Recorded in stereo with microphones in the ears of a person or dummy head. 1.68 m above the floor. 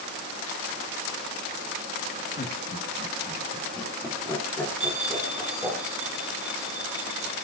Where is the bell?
35° right (ahead or behind), 1.4 m.